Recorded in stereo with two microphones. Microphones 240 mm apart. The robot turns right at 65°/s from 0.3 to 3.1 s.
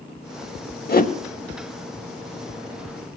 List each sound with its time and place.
0.9 s a whoosh: 40° left (ahead or behind), 0.6 m; by 1.1 s 25° left (ahead or behind), 0.6 m